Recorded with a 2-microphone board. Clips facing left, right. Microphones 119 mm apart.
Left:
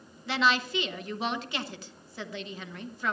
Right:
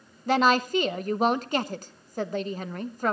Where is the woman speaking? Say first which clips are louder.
Right 6 dB; 45° right (ahead or behind), 1.0 m.